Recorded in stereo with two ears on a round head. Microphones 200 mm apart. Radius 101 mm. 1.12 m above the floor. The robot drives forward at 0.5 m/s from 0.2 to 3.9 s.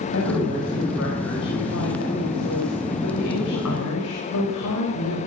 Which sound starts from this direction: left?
A woman speaking, at 0.1 s.